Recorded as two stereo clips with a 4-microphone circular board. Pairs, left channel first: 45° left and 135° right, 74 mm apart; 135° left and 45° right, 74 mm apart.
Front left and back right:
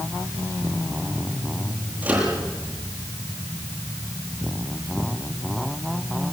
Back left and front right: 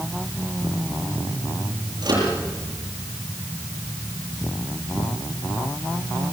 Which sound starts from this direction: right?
A microwave, at 2.0 s.